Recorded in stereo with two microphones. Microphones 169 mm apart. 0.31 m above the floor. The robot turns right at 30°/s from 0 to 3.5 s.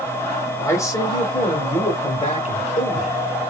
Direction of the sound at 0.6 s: 25° left.